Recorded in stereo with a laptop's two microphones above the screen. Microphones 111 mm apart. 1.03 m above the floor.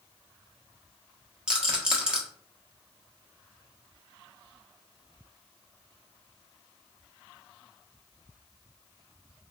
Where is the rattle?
10° right (ahead or behind), 1.0 m.